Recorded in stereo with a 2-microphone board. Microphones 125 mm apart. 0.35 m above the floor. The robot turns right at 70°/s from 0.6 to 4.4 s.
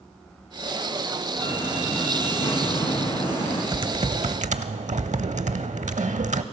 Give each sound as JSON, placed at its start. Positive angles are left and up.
{"t": 1.4, "sound": "a door slam", "azimuth_deg": -40, "distance_m": 8.0}
{"t": 3.7, "sound": "typing on a keyboard", "azimuth_deg": -140, "distance_m": 0.6}